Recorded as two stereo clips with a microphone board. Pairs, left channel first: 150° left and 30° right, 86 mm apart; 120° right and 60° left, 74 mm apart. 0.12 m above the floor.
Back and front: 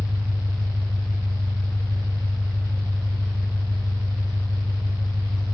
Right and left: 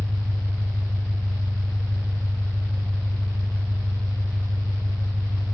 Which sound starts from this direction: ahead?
An engine running, at 0.0 s.